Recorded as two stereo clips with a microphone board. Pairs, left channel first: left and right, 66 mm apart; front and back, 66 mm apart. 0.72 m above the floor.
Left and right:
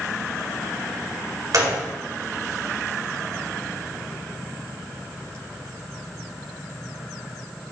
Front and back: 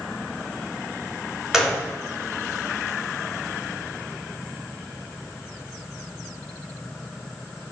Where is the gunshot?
100° right, 1.9 m.